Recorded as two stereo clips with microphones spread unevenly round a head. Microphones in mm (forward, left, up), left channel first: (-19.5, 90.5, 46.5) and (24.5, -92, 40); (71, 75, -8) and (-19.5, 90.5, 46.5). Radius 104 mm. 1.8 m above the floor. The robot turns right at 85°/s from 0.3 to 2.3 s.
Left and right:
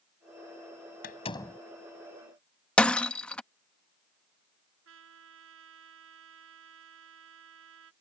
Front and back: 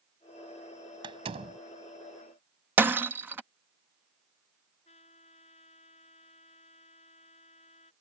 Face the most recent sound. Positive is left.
turn(degrees=-55)